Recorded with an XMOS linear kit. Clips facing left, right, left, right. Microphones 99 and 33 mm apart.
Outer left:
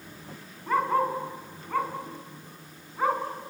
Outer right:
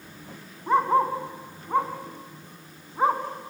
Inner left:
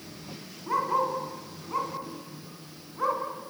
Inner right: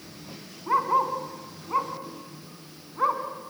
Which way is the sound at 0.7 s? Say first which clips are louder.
Outer right 4 dB, inner right 3 dB; 25° right (ahead or behind).